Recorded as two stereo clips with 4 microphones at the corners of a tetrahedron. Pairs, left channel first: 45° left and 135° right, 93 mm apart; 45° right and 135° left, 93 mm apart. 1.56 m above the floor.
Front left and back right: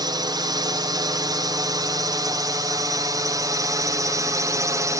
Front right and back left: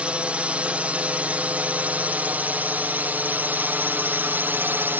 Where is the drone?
150° right; by 5.0 s 165° right.